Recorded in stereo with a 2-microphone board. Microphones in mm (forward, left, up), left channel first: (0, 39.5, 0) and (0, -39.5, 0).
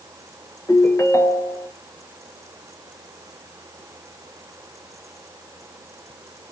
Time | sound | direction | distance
0.7 | a ringtone | 40° left (ahead or behind) | 0.6 m